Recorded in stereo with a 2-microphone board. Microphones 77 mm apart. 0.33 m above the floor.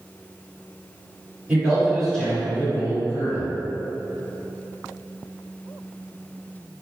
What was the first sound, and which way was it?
A man speaking, 15° right (ahead or behind).